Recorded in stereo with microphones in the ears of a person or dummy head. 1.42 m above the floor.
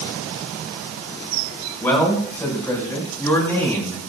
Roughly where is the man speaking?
Centre.